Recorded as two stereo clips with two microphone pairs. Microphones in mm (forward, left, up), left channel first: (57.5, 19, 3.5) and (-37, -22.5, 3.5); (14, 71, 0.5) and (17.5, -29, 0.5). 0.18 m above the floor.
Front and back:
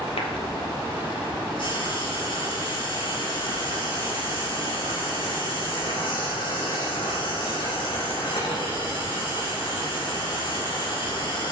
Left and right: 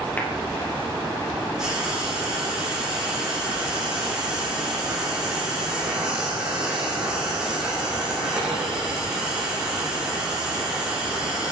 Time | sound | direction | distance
0.2 | a clap | 20° left | 3.5 m
1.6 | frying | 5° right | 6 m